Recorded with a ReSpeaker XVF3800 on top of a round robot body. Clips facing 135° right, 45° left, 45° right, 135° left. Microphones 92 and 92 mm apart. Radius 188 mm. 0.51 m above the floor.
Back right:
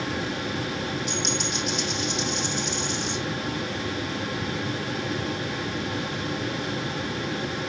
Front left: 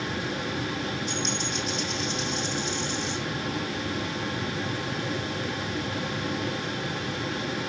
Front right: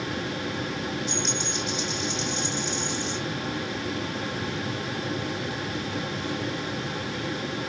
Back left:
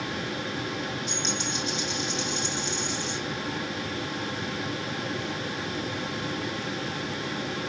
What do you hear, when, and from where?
1.1 s a dropped coin: 155° right, 5 m